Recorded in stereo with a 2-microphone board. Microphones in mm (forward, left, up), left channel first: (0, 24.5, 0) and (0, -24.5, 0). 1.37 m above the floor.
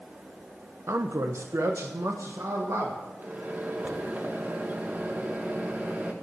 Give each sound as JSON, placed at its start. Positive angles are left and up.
{"t": 0.9, "sound": "a man speaking", "side_deg": -65, "distance_m": 0.8}
{"t": 3.2, "sound": "a microwave", "side_deg": -35, "distance_m": 1.4}